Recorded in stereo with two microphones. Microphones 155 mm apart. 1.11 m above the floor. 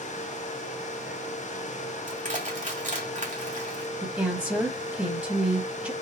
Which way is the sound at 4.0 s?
10° right (ahead or behind).